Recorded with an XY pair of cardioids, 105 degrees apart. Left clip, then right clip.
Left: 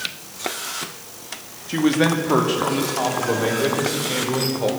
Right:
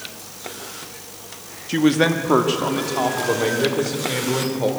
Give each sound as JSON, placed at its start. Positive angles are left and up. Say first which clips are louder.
{"t": 1.7, "sound": "a man speaking", "louder": "right 1 dB", "azimuth_deg": -20, "distance_m": 2.5}